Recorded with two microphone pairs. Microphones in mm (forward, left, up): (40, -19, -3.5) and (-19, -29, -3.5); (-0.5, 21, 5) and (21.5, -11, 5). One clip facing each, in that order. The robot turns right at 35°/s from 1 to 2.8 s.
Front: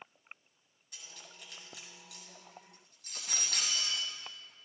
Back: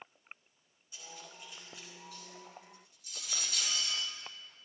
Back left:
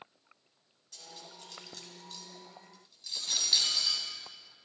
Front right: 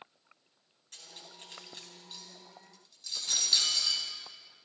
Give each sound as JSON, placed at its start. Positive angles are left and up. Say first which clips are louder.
{"t": 0.9, "sound": "cutlery clinking", "louder": "back 3 dB, back left 1 dB", "azimuth_deg": -20, "distance_m": 3.5}